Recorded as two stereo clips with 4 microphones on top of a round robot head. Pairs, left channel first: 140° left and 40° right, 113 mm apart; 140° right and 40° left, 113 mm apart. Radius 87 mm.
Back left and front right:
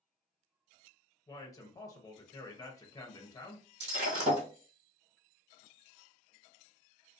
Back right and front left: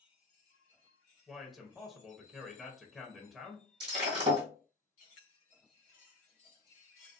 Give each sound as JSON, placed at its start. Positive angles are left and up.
{"t": 1.3, "sound": "a man speaking", "azimuth_deg": 130, "distance_m": 0.8}
{"t": 3.8, "sound": "breaking glass", "azimuth_deg": -5, "distance_m": 1.5}